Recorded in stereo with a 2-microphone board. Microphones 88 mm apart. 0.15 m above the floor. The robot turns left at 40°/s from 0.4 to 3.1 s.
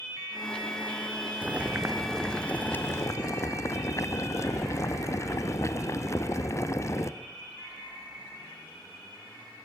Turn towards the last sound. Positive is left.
turn(degrees=135)